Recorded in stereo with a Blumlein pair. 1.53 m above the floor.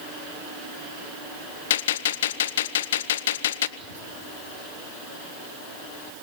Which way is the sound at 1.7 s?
60° left.